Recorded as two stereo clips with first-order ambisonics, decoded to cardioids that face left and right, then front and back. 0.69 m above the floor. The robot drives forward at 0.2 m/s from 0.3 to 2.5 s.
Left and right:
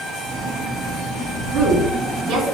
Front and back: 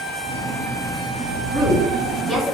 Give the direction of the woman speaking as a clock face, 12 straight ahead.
3 o'clock.